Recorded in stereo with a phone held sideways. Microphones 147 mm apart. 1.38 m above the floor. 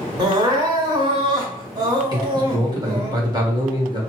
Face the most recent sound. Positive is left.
turn(degrees=-25)  # may be behind; listen again after turning